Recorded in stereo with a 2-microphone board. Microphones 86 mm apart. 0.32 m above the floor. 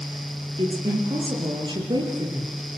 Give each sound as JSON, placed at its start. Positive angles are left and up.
{"t": 0.6, "sound": "a woman speaking", "side_deg": -65, "distance_m": 7.0}